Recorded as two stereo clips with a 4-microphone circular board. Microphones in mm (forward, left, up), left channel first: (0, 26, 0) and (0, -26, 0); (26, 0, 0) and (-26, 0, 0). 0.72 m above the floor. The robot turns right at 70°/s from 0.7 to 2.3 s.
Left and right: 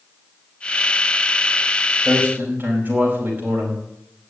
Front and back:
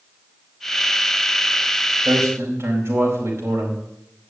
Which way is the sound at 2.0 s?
160° right.